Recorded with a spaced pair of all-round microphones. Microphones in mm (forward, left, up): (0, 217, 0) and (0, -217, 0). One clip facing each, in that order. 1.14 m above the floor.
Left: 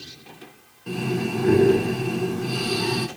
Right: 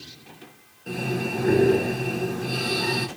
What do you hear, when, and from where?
0.9 s breathing: 15° left (ahead or behind), 0.9 m